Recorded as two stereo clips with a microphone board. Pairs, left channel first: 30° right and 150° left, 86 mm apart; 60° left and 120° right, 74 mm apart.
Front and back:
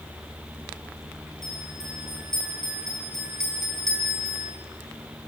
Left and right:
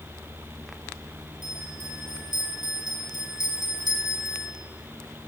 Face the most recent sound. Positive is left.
turn(degrees=-115)